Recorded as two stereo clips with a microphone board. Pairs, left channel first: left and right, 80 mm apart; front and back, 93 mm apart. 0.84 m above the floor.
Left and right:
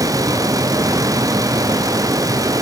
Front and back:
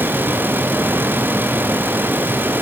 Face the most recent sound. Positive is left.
No sound to turn to.